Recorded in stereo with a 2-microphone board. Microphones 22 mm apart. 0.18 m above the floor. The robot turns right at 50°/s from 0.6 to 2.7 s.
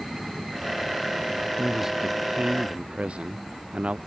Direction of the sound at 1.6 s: Straight behind.